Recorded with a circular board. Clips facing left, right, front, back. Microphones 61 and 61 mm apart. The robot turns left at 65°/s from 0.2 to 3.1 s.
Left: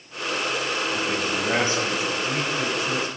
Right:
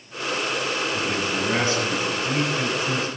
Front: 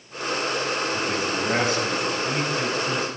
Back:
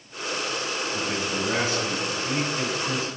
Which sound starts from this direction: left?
A man speaking, at 0.9 s.